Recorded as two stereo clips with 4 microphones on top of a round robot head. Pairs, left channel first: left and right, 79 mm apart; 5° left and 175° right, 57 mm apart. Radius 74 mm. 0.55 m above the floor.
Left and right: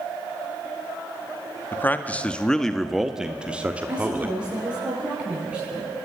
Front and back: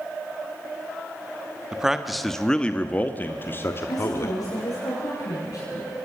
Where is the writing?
I don't hear writing.